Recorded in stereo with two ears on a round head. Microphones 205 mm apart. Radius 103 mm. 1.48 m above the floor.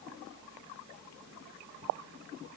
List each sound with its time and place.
Only background noise.